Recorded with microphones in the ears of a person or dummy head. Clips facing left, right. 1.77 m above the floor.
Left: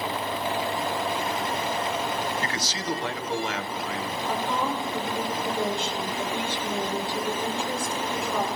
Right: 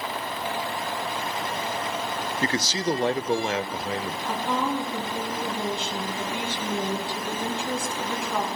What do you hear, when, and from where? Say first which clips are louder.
2.4 s a man speaking: right 5 dB; 25° right (ahead or behind), 0.6 m
4.3 s a woman speaking: right 2 dB; 50° right (ahead or behind), 3 m